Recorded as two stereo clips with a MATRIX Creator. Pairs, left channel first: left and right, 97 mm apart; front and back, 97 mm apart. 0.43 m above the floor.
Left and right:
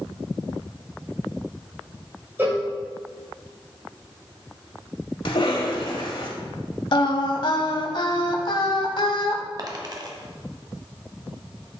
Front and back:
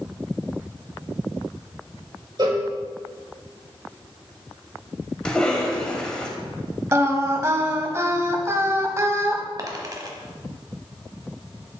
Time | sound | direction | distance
2.4 | a cowbell | 150° right | 1.9 m
5.2 | a cough | 80° left | 1.8 m
6.9 | singing | 120° left | 0.8 m
9.6 | a dropped coin | 135° right | 1.1 m